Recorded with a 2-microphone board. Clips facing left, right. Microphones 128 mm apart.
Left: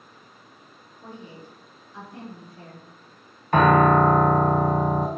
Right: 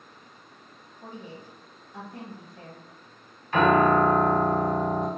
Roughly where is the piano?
Left.